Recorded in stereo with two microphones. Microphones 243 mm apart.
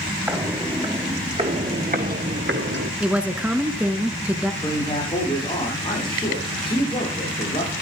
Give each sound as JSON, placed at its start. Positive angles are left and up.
{"t": 0.3, "sound": "footsteps", "side_deg": -10, "distance_m": 2.5}
{"t": 3.0, "sound": "a woman speaking", "side_deg": -5, "distance_m": 1.3}
{"t": 4.6, "sound": "a man speaking", "side_deg": 20, "distance_m": 8.0}